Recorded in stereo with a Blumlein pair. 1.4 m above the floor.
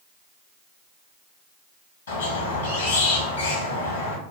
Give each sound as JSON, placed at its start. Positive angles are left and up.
{"t": 2.1, "sound": "a squeak", "azimuth_deg": 65, "distance_m": 1.4}